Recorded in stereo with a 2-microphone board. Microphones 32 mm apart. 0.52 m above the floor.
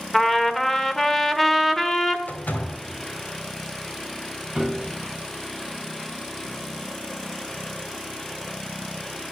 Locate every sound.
0.1 s a trumpet: 10° left (ahead or behind), 1.2 m
2.3 s a door slam: 65° left (ahead or behind), 2 m
4.5 s a piano: 20° right (ahead or behind), 2.5 m